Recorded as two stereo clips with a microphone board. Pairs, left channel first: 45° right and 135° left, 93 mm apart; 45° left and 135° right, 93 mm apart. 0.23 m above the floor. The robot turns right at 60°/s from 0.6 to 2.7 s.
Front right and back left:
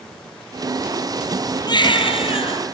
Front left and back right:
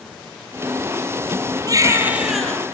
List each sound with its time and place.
1.7 s a baby crying: 85° right, 2 m; by 2.6 s 30° right, 2 m